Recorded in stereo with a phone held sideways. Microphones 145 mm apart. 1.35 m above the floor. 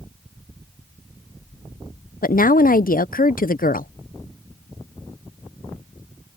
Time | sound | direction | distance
2.2 | a woman speaking | 80° left | ?